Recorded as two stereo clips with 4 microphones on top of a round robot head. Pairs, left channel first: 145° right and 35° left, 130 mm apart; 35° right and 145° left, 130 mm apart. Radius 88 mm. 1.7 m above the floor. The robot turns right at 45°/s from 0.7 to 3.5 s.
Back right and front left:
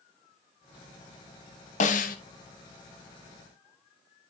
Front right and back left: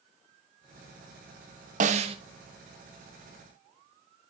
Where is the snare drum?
Straight behind, 1.1 m; by 2.2 s 165° right, 1.1 m.